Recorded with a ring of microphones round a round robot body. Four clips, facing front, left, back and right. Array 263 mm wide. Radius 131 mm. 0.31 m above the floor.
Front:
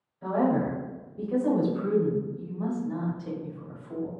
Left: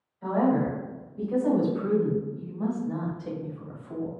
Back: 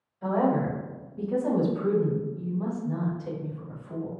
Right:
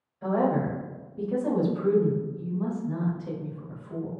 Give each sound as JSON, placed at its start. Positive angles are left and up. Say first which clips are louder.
{"t": 0.2, "sound": "a woman speaking", "louder": "left 1 dB, even", "azimuth_deg": -110, "distance_m": 1.6}